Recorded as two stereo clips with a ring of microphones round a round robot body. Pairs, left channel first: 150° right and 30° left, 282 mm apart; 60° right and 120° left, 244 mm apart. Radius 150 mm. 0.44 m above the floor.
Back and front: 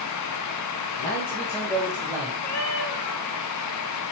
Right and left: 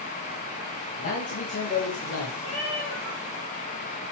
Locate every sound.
1.0 s a man speaking: 85° right, 3 m; by 2.3 s 45° right, 3 m
2.4 s a cat meowing: 125° right, 3.5 m